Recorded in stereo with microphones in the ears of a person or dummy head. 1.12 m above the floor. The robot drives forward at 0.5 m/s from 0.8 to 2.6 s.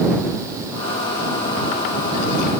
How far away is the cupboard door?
No cupboard door in this recording.